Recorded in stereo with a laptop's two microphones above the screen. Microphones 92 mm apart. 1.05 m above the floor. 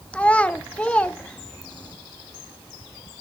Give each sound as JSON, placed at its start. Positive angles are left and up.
{"t": 0.1, "sound": "a child speaking", "side_deg": 15, "distance_m": 0.5}